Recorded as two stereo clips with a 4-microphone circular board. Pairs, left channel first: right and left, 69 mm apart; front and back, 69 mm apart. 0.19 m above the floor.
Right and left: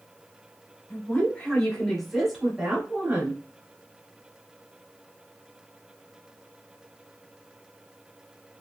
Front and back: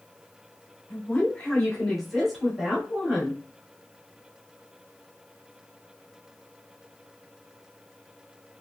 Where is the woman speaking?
50° right, 1.6 m; by 3.4 s 125° left, 1.6 m.